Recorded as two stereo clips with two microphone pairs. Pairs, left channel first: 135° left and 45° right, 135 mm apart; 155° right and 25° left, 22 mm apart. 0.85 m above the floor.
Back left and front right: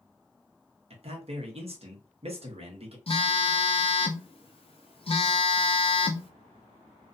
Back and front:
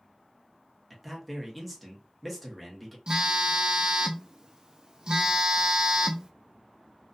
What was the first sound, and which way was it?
A man speaking, 60° right.